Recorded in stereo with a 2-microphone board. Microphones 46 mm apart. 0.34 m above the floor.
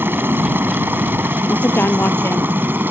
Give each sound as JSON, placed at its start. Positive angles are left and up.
{"t": 0.0, "sound": "a helicopter", "side_deg": -50}
{"t": 1.5, "sound": "a woman speaking", "side_deg": 55}